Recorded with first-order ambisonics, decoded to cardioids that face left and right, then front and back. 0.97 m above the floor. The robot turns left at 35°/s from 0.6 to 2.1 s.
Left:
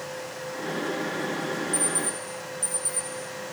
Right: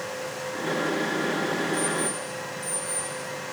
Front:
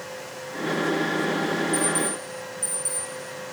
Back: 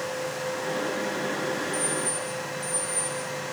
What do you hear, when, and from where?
1.7 s an alarm clock: 60° left, 3 m; by 3.1 s 45° left, 3 m